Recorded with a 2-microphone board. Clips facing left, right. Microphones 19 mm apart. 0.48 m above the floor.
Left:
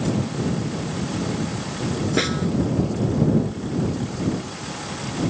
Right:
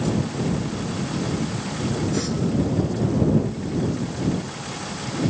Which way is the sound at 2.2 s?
80° left.